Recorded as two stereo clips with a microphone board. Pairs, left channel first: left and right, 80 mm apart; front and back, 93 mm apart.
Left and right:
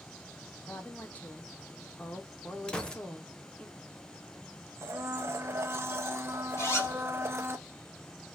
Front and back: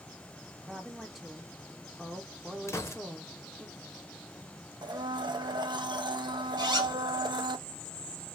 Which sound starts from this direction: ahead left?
A gunshot, at 2.7 s.